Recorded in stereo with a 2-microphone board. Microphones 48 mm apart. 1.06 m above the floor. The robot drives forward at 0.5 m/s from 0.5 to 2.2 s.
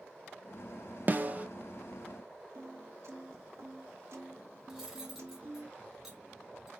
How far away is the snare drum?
About 0.7 m.